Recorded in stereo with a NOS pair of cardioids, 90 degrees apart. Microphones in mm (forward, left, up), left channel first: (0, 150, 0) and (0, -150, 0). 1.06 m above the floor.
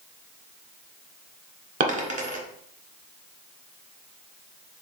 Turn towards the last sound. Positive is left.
turn(degrees=-25)